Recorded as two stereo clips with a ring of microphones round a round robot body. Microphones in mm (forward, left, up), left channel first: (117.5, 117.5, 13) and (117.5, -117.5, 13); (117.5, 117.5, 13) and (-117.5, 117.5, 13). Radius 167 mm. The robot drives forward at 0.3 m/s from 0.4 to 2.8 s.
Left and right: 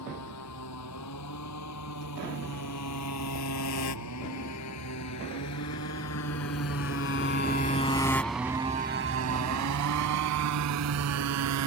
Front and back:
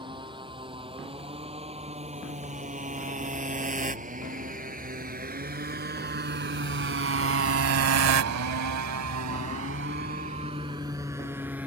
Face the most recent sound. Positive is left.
turn(degrees=-95)